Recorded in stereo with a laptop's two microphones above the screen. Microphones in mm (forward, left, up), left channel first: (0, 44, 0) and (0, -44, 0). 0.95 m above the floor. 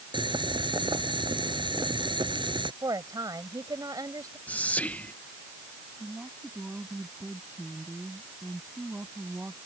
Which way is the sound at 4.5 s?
15° left (ahead or behind).